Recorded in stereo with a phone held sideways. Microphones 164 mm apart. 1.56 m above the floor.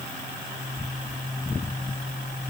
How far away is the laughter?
No laughter in this recording.